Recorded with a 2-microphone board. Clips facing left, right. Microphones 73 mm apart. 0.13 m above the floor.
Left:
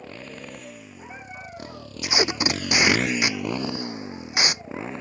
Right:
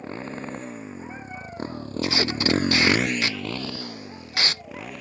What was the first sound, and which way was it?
A motorcycle, 35° right (ahead or behind).